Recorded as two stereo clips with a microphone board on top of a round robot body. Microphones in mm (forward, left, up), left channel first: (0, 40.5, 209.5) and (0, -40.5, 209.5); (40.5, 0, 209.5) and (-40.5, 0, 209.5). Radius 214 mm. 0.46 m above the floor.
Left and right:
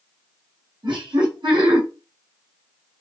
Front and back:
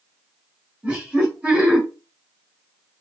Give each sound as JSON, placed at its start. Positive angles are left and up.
{"t": 0.8, "sound": "laughter", "azimuth_deg": -100, "distance_m": 1.5}